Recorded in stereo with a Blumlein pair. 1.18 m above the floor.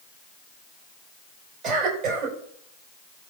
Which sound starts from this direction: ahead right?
A cough, at 1.6 s.